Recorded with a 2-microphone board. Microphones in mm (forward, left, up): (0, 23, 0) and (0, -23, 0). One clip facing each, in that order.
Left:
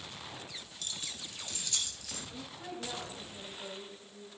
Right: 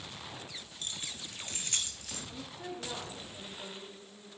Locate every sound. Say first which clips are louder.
0.8 s keys jangling: right 1 dB; 30° right (ahead or behind), 1.7 m; by 2.2 s 50° right (ahead or behind), 2.5 m
2.3 s a woman speaking: right 2 dB; 35° right (ahead or behind), 8 m